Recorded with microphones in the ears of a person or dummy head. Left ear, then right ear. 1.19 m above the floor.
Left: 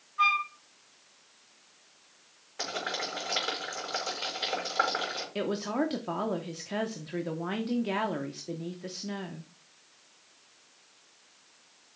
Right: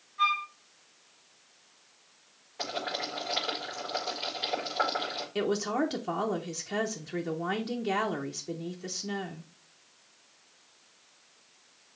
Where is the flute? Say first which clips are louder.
Left 2 dB; 15° left (ahead or behind), 4 m.